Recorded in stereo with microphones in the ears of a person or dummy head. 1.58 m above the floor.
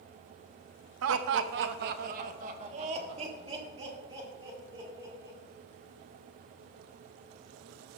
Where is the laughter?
70° right (ahead or behind), 0.7 m; by 5.4 s 20° right (ahead or behind), 3 m.